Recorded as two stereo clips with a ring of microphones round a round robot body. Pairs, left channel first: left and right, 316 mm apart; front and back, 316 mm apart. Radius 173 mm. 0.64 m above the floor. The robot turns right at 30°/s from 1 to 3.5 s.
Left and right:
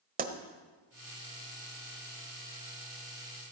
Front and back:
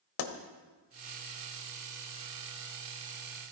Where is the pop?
25° right, 1.5 m.